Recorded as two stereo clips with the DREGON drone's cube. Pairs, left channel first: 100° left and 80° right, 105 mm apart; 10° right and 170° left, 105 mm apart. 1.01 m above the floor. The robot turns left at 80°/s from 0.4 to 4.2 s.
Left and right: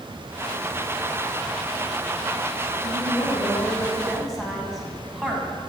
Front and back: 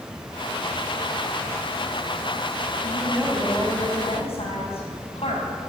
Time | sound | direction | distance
2.8 | a woman speaking | 120° left | 7 m